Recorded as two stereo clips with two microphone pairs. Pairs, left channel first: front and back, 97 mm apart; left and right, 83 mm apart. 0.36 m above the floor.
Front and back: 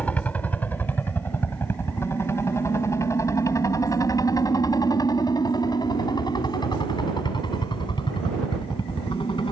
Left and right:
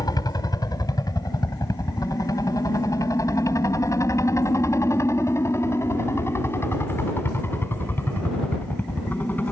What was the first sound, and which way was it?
A helicopter, 75° left.